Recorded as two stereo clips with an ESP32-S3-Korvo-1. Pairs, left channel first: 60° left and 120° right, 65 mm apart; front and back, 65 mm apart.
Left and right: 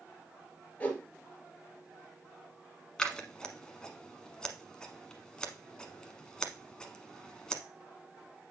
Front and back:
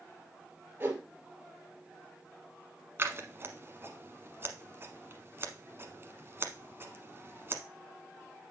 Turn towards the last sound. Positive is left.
turn(degrees=135)